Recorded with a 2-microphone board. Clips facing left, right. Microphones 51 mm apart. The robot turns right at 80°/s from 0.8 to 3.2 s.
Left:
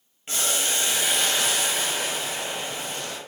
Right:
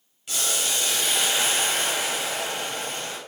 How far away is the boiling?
About 0.7 m.